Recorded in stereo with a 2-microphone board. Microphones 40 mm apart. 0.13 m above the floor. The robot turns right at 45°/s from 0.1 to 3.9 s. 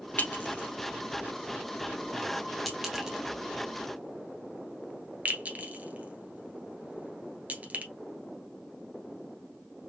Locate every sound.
0.2 s a clink: 50° left (ahead or behind), 1.2 m; by 7.8 s 40° right (ahead or behind), 1.2 m